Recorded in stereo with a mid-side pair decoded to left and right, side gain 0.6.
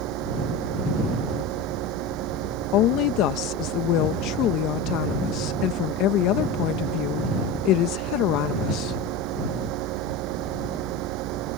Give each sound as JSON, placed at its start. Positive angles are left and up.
{"t": 0.0, "sound": "a fan", "azimuth_deg": -70}
{"t": 2.7, "sound": "a woman speaking", "azimuth_deg": 70}